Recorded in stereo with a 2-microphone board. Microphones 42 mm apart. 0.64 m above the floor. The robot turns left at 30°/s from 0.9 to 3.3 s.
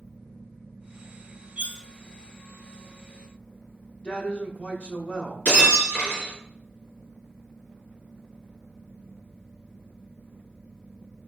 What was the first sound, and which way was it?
Cutlery clinking, 30° right (ahead or behind).